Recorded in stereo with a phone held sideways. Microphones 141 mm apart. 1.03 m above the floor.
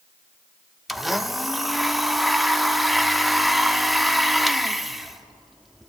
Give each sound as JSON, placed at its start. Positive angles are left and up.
{"t": 0.9, "sound": "a blender", "side_deg": 0, "distance_m": 0.7}